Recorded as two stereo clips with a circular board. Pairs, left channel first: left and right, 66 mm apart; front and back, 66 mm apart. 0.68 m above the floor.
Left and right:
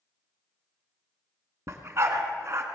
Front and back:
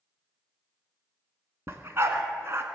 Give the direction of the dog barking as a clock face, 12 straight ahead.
4 o'clock.